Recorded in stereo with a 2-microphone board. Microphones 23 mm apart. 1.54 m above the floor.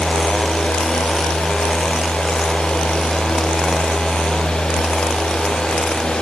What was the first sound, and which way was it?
Only background noise.